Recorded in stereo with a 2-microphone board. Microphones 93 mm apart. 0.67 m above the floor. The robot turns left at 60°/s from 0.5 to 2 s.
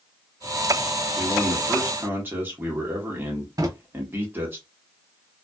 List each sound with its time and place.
1.2 s a man speaking: 25° left, 1.6 m; by 4.6 s 25° right, 1.6 m
3.6 s a drawer: 40° right (ahead or behind), 0.6 m